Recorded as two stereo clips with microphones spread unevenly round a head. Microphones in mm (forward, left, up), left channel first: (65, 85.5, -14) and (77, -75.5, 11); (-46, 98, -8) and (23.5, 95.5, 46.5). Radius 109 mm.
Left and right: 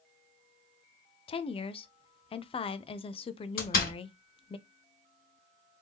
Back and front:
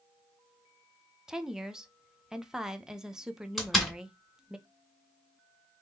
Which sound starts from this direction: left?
A door slam, at 3.6 s.